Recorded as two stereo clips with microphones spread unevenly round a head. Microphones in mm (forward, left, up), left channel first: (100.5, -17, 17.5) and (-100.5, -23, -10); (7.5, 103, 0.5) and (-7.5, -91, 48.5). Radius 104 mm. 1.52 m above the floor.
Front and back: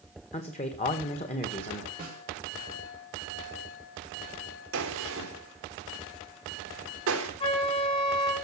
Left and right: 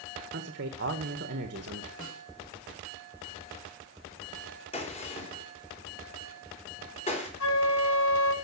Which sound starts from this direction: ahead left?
A flute, at 7.4 s.